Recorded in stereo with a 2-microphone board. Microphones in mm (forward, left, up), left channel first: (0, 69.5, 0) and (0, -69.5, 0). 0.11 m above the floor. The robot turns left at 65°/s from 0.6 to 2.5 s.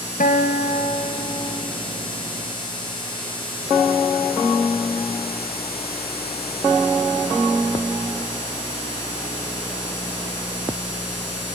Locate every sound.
0.2 s a guitar: 90° left, 3 m; by 1.7 s 20° left, 3 m